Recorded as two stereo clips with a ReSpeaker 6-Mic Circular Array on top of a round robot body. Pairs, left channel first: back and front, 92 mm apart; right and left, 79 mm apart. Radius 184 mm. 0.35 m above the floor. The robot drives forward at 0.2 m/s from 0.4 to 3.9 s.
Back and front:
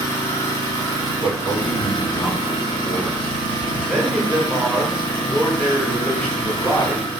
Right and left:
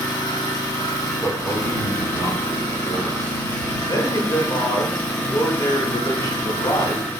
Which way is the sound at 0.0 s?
125° right.